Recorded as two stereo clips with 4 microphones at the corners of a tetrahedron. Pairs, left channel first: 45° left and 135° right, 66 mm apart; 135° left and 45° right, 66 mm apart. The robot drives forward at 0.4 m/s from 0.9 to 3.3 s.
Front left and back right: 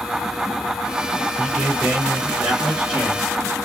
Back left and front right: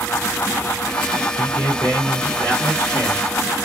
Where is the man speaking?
160° left, 1.4 m; by 3.3 s 170° left, 2.0 m.